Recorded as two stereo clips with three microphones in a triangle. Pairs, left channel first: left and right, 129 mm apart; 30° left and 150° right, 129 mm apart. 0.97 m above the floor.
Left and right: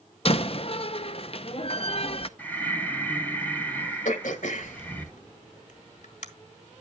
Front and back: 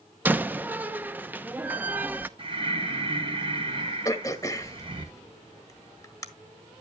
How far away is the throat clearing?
About 1.5 m.